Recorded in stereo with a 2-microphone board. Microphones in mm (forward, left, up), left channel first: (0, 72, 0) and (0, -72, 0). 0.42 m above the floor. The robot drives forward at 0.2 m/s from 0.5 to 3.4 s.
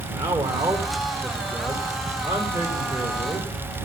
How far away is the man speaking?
About 0.9 m.